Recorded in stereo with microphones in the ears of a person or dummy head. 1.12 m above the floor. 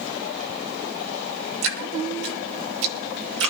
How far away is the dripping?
About 2 m.